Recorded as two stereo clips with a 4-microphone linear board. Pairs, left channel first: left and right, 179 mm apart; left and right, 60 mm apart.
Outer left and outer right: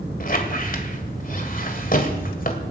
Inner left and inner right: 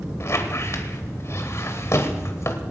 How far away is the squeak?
About 1.8 m.